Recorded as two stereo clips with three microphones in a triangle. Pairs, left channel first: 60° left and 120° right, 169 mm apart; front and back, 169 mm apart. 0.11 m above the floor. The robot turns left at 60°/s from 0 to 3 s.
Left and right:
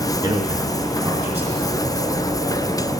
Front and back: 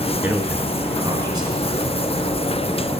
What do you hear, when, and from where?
0.2 s a man speaking: 115° right, 1.5 m; by 1.6 s 160° left, 1.5 m